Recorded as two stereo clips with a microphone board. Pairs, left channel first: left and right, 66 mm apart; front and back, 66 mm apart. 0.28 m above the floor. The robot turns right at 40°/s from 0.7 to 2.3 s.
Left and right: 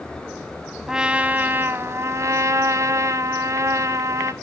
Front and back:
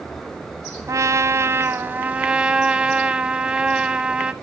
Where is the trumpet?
165° right, 1.0 m; by 4.3 s 110° right, 1.0 m.